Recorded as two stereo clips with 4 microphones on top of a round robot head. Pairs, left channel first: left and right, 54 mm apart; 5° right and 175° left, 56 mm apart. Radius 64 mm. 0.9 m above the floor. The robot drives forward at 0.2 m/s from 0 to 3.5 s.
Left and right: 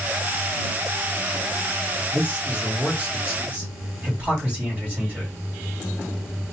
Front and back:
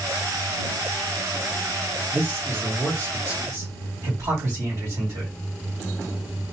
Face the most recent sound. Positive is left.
turn(degrees=-150)